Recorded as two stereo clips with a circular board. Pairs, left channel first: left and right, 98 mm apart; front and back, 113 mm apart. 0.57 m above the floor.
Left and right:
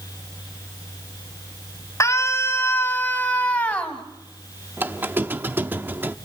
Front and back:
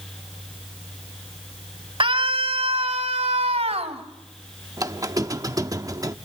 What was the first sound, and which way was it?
A scream, 145° left.